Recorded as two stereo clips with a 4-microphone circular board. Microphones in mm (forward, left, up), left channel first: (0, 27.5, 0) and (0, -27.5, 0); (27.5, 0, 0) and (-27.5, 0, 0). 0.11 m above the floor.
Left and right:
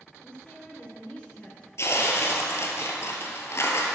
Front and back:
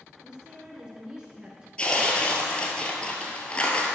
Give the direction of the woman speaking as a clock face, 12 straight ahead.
8 o'clock.